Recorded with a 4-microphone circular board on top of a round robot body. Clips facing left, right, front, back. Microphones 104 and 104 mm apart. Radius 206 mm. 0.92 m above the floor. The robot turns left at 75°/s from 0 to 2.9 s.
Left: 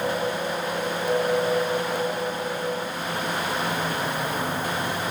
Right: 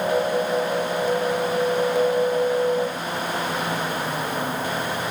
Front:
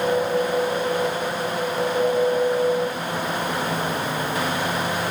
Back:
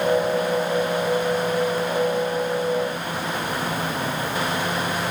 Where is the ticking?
No ticking in this recording.